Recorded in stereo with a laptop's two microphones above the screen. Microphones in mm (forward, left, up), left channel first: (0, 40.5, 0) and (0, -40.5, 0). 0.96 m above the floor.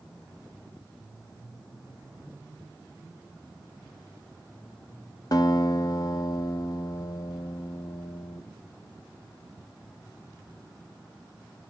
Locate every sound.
5.3 s a guitar: 50° left (ahead or behind), 1.3 m